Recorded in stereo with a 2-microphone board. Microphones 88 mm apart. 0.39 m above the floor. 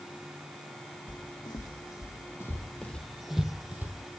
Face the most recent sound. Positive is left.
turn(degrees=-25)  # may be behind; listen again after turning